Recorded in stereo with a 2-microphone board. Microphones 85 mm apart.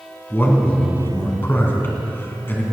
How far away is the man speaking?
About 2.5 m.